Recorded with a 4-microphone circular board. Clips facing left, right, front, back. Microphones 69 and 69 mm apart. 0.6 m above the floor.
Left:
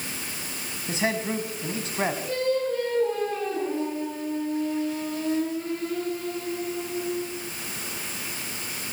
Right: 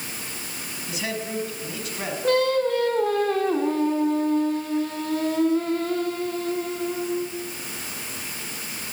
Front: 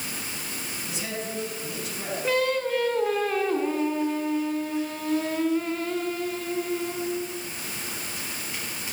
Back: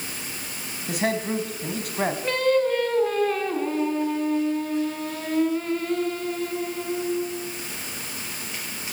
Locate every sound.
0.9 s a man speaking: 150° left, 4.5 m
2.2 s singing: 85° right, 4.5 m